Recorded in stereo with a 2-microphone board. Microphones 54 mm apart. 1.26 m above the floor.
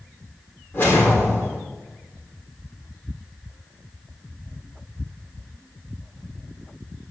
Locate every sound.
0.7 s a whoosh: 40° left (ahead or behind), 5 m